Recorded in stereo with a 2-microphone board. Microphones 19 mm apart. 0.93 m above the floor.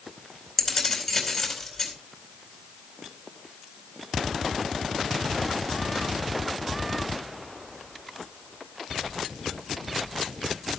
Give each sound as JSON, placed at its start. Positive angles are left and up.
{"t": 0.6, "sound": "keys jangling", "side_deg": 5, "distance_m": 4.0}